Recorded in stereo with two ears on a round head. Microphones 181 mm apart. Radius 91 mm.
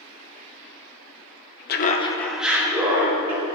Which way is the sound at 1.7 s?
50° left (ahead or behind).